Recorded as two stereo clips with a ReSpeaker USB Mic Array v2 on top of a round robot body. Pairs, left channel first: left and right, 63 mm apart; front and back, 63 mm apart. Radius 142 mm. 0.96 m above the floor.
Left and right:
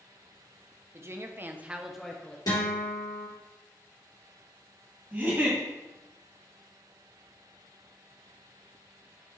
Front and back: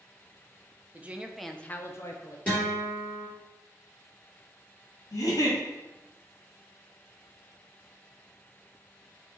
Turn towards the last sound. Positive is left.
turn(degrees=-30)